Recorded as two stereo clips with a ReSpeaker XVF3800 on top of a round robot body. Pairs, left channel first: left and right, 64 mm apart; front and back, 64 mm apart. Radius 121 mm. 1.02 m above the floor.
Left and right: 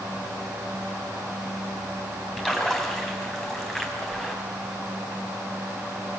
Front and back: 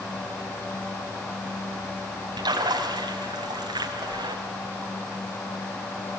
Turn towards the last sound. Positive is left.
turn(degrees=175)